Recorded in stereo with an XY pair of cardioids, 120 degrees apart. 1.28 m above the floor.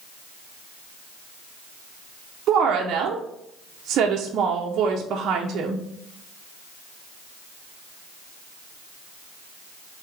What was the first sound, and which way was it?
A woman speaking, 65° right.